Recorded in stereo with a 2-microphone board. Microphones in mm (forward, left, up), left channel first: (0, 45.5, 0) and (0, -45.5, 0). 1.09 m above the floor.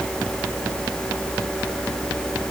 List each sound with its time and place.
Only background noise.